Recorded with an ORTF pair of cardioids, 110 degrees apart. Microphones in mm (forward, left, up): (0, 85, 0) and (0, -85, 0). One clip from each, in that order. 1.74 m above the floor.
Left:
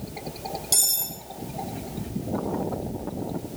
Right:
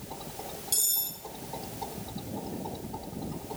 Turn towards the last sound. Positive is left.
turn(degrees=40)